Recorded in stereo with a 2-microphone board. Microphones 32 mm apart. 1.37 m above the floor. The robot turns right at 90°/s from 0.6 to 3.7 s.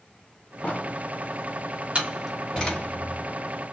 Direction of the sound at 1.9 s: 35° right (ahead or behind).